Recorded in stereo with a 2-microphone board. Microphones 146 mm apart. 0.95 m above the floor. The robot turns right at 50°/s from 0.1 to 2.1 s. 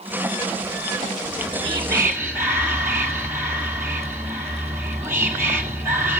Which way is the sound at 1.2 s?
60° right.